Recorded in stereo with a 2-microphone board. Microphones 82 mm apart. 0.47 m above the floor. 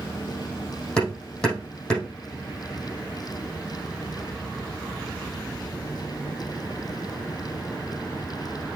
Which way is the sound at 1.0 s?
10° left (ahead or behind).